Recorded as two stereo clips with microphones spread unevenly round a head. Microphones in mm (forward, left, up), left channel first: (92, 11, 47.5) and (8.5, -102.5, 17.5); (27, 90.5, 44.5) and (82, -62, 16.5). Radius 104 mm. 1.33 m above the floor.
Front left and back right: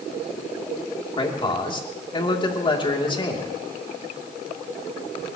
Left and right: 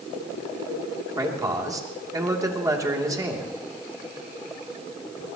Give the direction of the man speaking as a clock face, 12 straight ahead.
12 o'clock.